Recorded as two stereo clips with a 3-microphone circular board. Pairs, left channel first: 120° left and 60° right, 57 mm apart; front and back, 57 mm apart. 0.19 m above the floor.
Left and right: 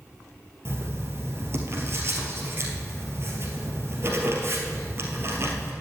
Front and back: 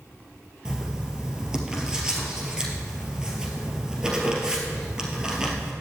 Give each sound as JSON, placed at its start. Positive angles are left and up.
{"t": 0.7, "sound": "writing", "azimuth_deg": -105, "distance_m": 1.9}